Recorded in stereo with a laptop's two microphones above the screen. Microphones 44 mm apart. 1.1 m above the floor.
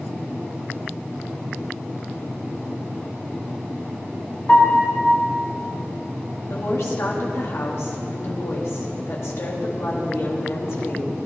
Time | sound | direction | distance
4.5 | a piano | 25° left (ahead or behind) | 4.5 m
6.5 | a woman speaking | 65° left (ahead or behind) | 1.9 m